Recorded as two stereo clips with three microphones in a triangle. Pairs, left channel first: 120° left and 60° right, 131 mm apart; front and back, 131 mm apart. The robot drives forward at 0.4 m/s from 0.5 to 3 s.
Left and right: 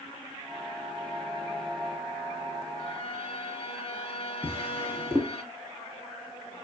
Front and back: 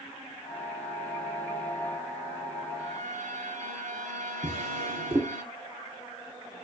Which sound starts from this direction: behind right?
A drawer, at 4.4 s.